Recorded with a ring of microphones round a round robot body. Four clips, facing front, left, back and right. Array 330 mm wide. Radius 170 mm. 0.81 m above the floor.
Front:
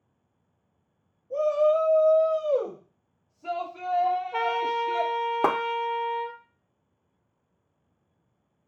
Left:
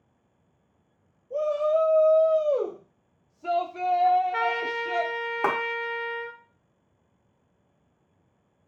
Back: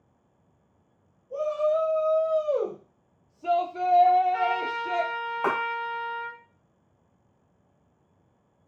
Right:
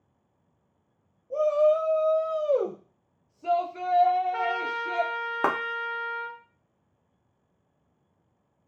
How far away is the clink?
No clink in this recording.